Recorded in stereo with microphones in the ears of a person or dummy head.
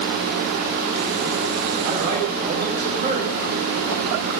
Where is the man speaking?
45° right (ahead or behind), 4.5 m.